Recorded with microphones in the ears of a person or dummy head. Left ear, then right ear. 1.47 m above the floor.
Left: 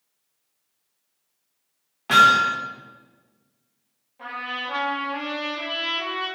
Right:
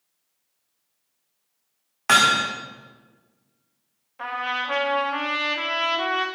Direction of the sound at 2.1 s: 55° right (ahead or behind).